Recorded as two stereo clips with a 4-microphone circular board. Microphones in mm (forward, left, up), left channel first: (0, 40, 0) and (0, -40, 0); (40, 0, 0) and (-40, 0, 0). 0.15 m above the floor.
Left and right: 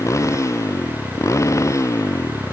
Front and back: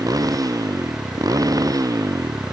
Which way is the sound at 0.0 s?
140° left.